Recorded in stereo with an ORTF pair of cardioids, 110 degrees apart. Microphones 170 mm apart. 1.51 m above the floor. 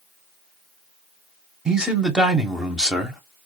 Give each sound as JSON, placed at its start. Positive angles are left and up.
{"t": 1.6, "sound": "a man speaking", "azimuth_deg": -5, "distance_m": 0.9}